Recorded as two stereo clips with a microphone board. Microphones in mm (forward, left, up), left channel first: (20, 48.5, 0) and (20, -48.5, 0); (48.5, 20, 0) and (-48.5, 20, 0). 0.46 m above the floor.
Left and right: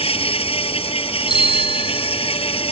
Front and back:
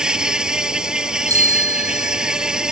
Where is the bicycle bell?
125° left.